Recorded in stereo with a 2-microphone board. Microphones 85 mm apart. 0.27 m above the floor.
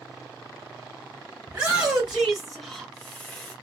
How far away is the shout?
About 1.3 m.